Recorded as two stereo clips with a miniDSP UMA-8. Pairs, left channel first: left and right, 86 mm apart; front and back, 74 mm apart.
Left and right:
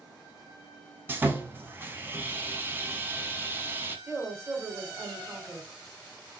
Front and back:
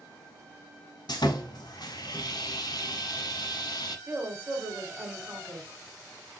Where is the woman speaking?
135° right, 1.4 m.